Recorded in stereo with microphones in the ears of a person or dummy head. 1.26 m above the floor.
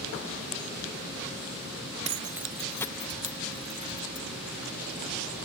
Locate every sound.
2.0 s keys jangling: 35° right (ahead or behind); by 4.2 s 35° left (ahead or behind)